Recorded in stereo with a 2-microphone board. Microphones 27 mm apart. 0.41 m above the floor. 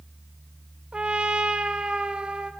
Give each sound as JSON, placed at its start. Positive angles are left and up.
{"t": 0.9, "sound": "a trumpet", "side_deg": -45, "distance_m": 0.6}